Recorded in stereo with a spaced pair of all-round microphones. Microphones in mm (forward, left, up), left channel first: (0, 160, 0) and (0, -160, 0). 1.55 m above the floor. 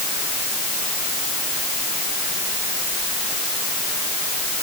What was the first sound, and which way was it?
Only background noise.